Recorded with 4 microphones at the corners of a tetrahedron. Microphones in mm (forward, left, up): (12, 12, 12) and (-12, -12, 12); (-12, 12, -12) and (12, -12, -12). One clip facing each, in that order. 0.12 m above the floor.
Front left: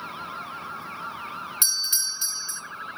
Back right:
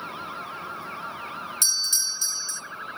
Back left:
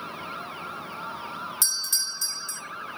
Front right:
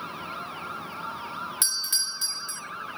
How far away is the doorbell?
About 1.6 m.